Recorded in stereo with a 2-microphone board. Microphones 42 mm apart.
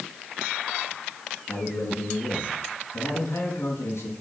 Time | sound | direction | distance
1.5 | a man speaking | 75° left (ahead or behind) | 4 m